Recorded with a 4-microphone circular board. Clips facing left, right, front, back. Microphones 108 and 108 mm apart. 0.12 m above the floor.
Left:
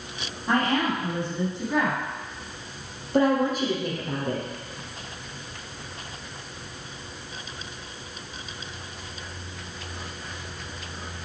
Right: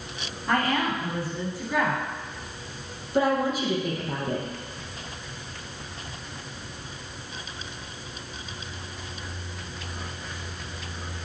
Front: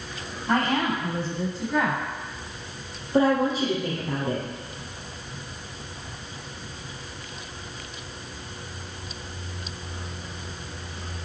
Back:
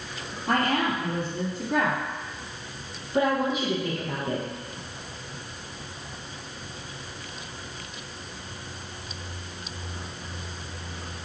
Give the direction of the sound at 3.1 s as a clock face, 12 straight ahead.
10 o'clock.